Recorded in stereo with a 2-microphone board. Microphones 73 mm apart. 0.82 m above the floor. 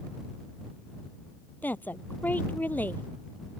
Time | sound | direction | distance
1.6 | a woman speaking | 25° left (ahead or behind) | ?